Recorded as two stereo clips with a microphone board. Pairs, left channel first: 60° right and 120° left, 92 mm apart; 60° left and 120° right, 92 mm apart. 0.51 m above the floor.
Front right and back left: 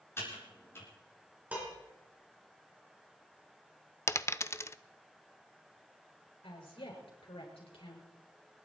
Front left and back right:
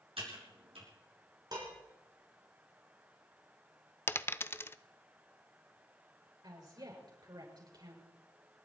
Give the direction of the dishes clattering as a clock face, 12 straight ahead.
5 o'clock.